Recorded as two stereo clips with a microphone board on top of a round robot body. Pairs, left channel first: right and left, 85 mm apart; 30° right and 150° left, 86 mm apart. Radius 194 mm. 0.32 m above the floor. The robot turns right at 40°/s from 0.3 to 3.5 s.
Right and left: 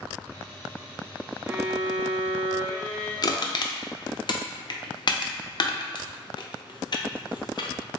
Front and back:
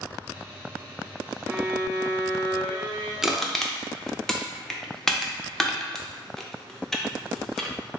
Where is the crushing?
125° right, 0.6 m; by 7.7 s 115° right, 0.6 m.